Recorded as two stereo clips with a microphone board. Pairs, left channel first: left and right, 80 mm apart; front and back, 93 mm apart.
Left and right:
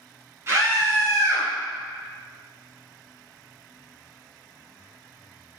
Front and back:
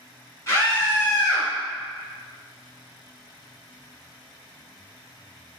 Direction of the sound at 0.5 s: 45° right.